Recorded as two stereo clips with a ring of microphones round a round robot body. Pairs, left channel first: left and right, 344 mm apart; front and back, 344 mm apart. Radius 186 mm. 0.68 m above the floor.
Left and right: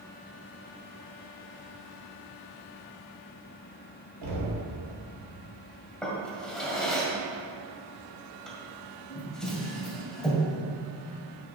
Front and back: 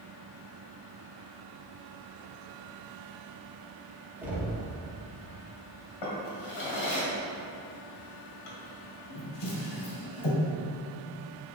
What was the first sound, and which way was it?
Knocking, 95° right.